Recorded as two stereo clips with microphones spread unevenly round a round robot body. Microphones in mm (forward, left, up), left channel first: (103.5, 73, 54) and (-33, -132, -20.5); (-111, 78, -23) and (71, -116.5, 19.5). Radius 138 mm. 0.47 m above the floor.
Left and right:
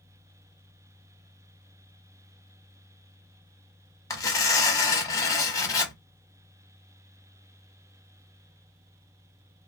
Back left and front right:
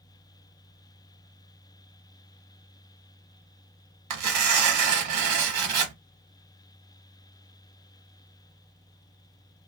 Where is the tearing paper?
20° right, 0.9 m.